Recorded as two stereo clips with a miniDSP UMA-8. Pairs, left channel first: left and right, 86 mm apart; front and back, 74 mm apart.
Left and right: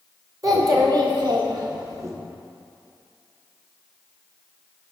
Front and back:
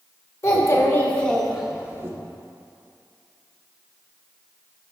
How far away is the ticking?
No ticking in this recording.